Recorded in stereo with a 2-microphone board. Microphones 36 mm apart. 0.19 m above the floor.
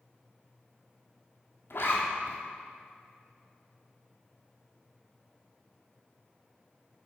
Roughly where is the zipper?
Left.